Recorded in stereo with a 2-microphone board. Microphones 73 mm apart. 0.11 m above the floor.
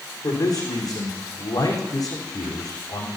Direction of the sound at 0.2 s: 55° left (ahead or behind).